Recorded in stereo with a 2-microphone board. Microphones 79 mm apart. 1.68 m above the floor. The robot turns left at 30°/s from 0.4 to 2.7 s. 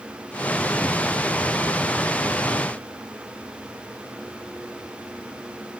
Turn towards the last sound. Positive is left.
No sound to turn to.